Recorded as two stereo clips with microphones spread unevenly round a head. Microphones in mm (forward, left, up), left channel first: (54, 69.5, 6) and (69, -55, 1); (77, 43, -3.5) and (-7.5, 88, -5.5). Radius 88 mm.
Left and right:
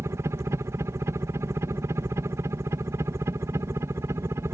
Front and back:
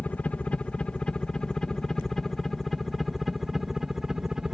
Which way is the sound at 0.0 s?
80° right.